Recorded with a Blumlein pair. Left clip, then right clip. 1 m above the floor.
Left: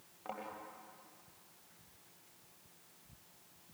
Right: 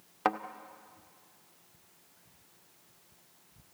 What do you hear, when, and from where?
0.2 s a thud: 40° right, 1.3 m